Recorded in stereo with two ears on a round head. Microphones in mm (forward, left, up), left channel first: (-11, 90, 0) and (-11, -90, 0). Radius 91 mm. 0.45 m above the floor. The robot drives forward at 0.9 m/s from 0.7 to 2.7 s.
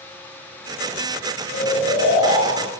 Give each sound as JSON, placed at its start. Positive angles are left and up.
{"t": 1.5, "sound": "snoring", "side_deg": 70, "distance_m": 6.0}